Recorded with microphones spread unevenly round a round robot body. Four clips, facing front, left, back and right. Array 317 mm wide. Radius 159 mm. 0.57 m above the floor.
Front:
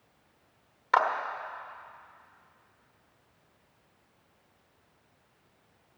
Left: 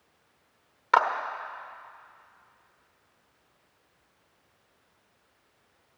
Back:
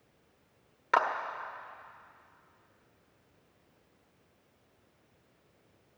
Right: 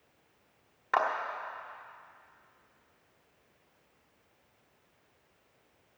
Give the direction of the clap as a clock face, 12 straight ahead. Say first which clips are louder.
Left 6 dB, front 3 dB; 7 o'clock.